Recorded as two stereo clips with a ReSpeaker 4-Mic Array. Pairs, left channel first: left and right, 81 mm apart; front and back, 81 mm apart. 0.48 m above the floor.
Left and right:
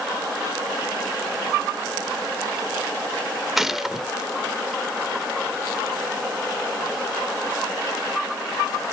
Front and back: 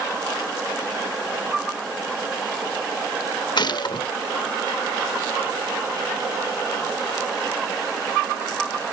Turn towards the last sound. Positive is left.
turn(degrees=-5)